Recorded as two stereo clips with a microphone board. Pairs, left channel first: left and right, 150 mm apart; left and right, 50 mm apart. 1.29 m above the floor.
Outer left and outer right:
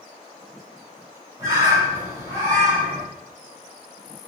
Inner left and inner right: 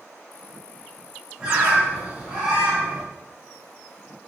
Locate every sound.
1.4 s a bird: 20° right (ahead or behind), 1.5 m